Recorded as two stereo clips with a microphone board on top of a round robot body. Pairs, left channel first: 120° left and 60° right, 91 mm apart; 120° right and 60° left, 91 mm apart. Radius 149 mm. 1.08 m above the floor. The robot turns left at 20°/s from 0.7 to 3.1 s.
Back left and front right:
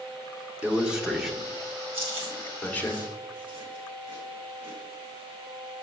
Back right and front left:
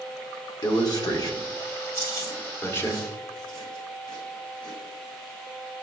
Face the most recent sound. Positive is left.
turn(degrees=-85)